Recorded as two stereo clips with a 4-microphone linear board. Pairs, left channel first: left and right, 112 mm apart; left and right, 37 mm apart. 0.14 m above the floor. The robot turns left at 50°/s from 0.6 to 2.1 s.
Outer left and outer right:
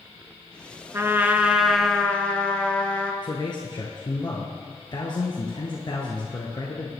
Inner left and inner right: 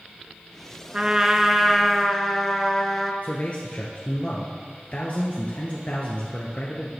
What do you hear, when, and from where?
0.9 s a trumpet: 140° right, 1.3 m; by 3.1 s 165° left, 1.3 m
3.2 s a man speaking: 45° left (ahead or behind), 1.7 m